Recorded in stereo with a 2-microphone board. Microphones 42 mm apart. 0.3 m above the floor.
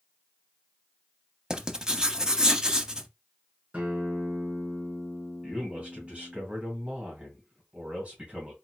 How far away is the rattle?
No rattle in this recording.